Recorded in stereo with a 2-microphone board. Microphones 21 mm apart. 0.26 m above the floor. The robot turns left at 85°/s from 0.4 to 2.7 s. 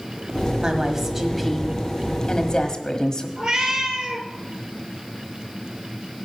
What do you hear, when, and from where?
0.6 s a woman speaking: 115° right, 1.2 m; by 3.3 s 65° left, 1.2 m
3.4 s a cat meowing: 50° right (ahead or behind), 1.3 m